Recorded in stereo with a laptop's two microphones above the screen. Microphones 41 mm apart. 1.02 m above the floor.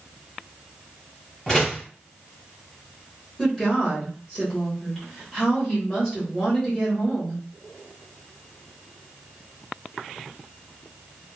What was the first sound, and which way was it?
A door slam, 20° left (ahead or behind).